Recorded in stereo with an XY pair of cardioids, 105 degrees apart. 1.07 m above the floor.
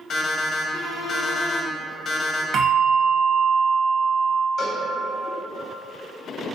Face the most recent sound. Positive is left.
turn(degrees=55)